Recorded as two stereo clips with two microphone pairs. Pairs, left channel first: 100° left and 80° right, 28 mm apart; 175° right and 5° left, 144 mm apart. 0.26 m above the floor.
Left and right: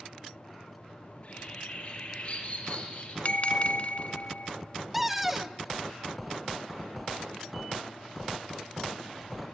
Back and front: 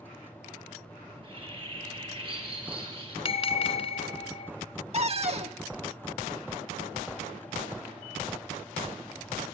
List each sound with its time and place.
1.1 s a bird: 55° left, 3.5 m
3.2 s a bell: 140° left, 0.9 m
4.9 s a cupboard door: straight ahead, 0.7 m